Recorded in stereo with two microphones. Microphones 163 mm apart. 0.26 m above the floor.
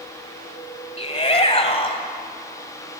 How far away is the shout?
About 1.5 m.